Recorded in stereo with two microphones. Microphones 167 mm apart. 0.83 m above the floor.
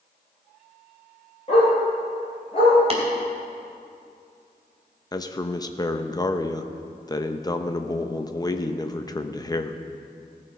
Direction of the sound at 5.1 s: 25° left (ahead or behind).